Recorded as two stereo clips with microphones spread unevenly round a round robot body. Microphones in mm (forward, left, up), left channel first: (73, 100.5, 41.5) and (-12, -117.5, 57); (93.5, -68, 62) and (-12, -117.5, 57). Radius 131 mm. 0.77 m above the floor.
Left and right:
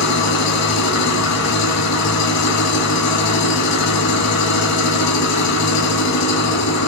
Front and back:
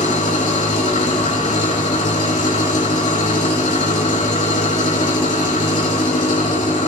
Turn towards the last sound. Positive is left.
turn(degrees=90)